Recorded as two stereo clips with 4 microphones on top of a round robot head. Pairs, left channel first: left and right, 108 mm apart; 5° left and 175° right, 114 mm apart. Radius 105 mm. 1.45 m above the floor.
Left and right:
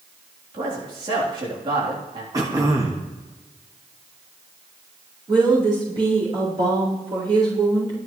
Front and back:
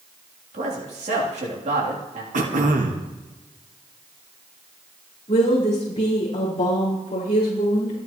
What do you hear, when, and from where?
0.5 s a man speaking: 140° right, 3.5 m
2.3 s throat clearing: 155° right, 1.6 m
5.3 s a woman speaking: 45° right, 4.5 m